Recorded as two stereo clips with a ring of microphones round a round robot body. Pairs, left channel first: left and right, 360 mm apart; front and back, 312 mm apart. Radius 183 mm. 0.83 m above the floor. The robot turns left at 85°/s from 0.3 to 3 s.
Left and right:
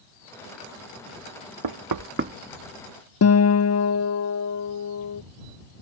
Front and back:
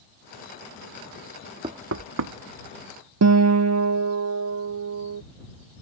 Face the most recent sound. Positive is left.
turn(degrees=140)